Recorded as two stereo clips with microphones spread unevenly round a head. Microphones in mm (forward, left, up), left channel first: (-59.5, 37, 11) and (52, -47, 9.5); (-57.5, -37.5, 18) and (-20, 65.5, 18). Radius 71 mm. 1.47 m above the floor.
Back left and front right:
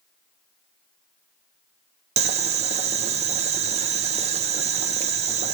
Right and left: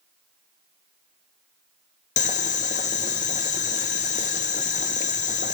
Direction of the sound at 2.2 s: 80° right.